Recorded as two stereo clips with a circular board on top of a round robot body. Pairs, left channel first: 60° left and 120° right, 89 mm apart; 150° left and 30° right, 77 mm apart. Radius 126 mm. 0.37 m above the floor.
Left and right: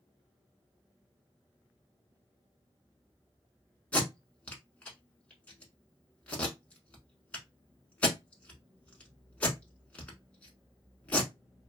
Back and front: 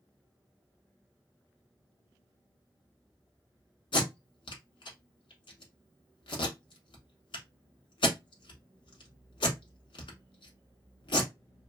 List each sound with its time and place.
3.9 s tape being pulled: 135° left, 0.7 m